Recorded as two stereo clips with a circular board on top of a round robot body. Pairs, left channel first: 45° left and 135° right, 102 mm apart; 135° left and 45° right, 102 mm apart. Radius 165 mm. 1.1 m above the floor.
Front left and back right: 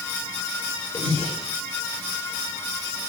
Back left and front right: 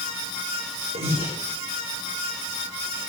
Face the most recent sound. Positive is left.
turn(degrees=-30)